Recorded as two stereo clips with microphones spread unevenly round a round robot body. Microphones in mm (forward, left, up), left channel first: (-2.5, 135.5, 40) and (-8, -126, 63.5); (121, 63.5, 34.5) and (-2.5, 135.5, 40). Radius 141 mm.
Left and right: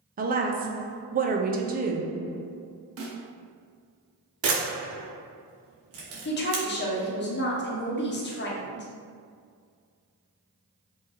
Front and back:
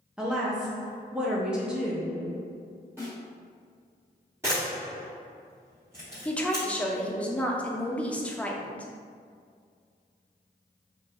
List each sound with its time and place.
0.2 s a woman speaking: 130° right, 0.6 m
3.0 s a snare drum: 130° right, 1.0 m
4.4 s a camera shutter: 130° right, 1.2 m
6.2 s a woman speaking: 50° left, 0.9 m